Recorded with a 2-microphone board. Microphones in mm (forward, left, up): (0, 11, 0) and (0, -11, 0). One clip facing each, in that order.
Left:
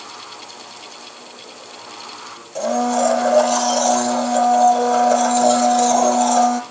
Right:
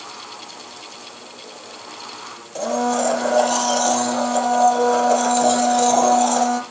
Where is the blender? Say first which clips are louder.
Left 2 dB; 5° right (ahead or behind), 4.5 m.